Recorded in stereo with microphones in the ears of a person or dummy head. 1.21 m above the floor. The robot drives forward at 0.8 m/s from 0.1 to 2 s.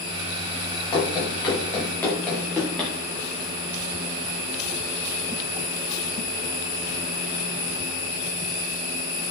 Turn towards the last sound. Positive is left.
turn(degrees=-5)  # may be behind; listen again after turning